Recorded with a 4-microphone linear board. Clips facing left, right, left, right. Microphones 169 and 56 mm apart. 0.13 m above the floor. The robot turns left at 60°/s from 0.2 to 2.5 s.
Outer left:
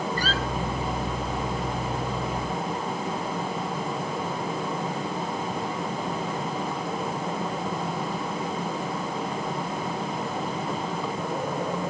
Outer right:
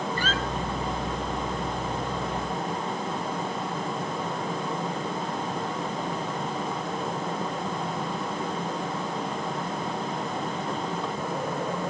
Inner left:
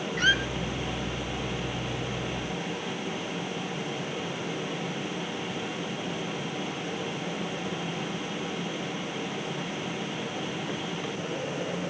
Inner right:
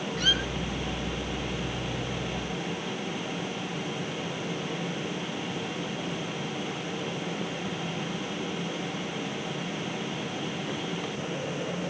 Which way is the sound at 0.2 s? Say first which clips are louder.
Outer left 1 dB, inner left 5 dB; 40° left (ahead or behind).